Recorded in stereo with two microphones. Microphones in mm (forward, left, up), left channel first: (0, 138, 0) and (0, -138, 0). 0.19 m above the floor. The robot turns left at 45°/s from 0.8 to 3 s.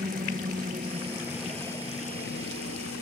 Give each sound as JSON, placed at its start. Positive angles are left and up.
{"t": 0.0, "sound": "a helicopter", "side_deg": -30}